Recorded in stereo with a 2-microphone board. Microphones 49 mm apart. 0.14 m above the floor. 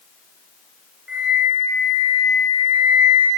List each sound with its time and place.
1.1 s a flute: 15° right (ahead or behind), 4.5 m